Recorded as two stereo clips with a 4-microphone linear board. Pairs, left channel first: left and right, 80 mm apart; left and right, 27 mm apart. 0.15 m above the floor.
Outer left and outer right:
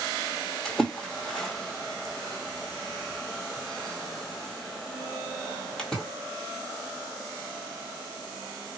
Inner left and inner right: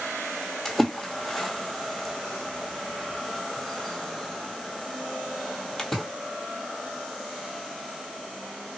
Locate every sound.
0.7 s a splash: 10° left (ahead or behind), 1.0 m